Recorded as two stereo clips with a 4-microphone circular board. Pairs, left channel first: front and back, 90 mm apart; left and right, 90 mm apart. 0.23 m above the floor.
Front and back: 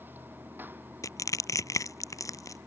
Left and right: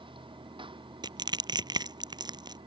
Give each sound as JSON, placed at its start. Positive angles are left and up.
{"t": 0.0, "sound": "running water", "azimuth_deg": -115}
{"t": 1.0, "sound": "crushing", "azimuth_deg": -55}